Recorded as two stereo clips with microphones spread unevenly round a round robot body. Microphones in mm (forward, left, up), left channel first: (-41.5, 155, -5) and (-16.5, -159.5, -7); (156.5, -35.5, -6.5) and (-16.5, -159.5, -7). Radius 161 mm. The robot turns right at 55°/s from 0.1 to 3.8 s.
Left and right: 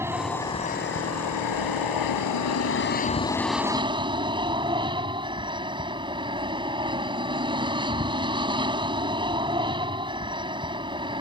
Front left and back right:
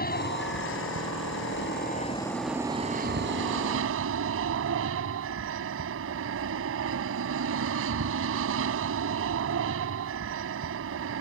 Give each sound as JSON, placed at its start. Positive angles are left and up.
{"t": 0.0, "sound": "an aircraft", "azimuth_deg": -5}